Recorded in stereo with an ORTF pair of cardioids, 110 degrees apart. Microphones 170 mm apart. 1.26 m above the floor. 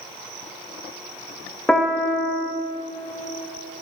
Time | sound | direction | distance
1.7 | a piano | 5° left | 1.3 m